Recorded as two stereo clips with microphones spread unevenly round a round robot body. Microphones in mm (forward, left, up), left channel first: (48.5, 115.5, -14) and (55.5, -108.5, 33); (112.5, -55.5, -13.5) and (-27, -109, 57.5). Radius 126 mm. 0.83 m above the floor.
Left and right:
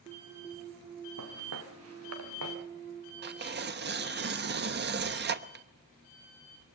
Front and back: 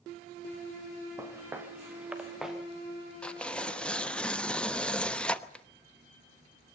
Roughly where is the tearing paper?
Ahead right.